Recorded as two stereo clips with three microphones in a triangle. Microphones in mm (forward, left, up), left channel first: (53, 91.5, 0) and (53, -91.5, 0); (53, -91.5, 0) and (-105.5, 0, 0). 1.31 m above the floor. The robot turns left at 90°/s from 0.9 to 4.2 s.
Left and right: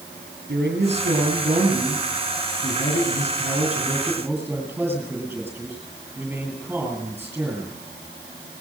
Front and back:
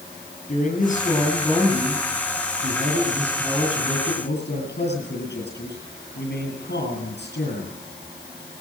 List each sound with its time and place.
0.5 s a man speaking: 70° right, 10 m; by 7.8 s 10° right, 10 m